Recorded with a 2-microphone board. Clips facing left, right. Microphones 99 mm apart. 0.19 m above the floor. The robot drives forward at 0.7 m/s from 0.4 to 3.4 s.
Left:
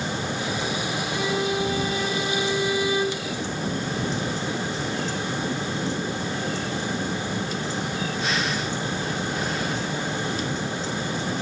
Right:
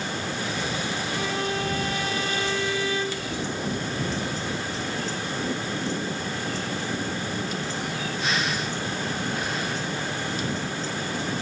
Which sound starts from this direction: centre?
A violin, at 1.1 s.